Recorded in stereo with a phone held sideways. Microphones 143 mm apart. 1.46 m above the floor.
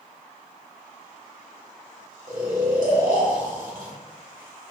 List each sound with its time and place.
2.3 s snoring: 75° right (ahead or behind), 1.2 m